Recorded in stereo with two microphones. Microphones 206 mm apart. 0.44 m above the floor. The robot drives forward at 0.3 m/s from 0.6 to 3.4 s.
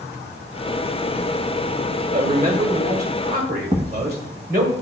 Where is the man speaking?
45° right (ahead or behind), 2 m.